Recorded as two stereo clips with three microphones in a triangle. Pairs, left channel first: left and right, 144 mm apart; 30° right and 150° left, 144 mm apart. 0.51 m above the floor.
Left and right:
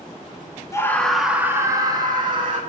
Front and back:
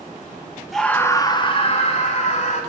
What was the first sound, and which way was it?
A scream, 60° left.